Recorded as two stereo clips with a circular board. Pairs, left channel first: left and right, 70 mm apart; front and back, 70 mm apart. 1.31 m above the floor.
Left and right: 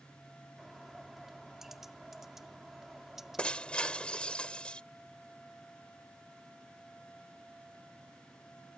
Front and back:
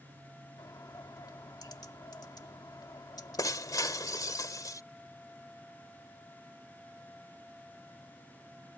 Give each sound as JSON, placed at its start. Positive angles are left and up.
{"t": 0.6, "sound": "a bird", "azimuth_deg": -5}
{"t": 3.4, "sound": "breaking glass", "azimuth_deg": 15}